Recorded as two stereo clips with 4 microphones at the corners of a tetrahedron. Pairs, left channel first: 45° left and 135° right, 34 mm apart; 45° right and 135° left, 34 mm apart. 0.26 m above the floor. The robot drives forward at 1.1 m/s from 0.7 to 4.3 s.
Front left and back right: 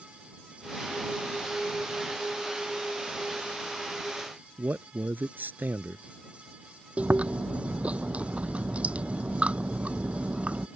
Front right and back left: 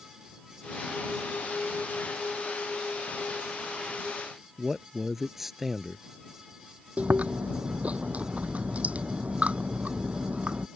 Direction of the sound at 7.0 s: 175° left.